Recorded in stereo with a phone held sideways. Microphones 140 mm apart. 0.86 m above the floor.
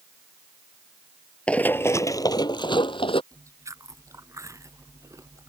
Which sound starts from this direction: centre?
Running footsteps, at 1.5 s.